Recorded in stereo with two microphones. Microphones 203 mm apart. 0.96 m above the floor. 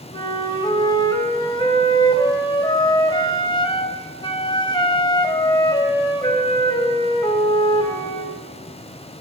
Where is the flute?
20° left (ahead or behind), 4 m.